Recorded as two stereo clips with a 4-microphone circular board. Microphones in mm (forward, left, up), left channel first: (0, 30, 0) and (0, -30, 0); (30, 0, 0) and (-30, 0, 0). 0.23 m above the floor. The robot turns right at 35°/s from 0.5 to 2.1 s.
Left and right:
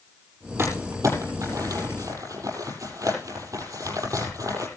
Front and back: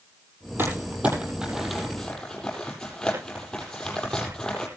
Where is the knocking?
I don't hear knocking.